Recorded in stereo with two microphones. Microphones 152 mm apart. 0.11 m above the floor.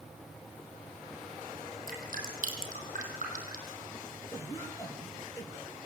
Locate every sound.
1.9 s dripping: 60° right (ahead or behind), 4.5 m
4.3 s a cough: 20° left (ahead or behind), 3 m